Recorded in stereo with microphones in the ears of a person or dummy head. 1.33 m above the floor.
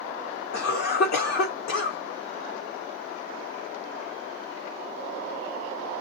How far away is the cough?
About 1.2 m.